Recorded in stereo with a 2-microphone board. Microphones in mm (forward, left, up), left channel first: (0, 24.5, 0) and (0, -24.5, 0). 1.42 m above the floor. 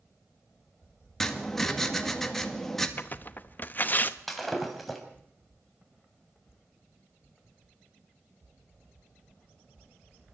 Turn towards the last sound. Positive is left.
turn(degrees=5)  # may be behind; listen again after turning